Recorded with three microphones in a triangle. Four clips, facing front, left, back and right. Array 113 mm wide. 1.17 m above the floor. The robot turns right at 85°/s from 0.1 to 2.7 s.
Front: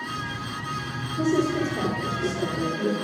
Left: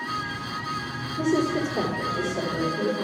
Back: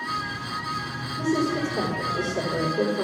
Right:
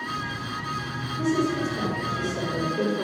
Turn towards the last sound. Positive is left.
turn(degrees=180)